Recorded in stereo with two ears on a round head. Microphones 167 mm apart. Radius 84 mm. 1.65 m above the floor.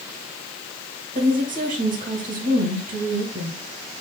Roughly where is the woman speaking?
Right.